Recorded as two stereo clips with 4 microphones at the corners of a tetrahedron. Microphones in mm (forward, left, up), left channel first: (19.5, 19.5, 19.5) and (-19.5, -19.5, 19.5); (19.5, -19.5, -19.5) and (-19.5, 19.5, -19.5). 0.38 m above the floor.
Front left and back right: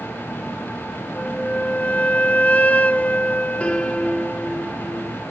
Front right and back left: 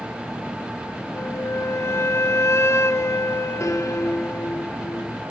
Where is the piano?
20° right, 3.5 m.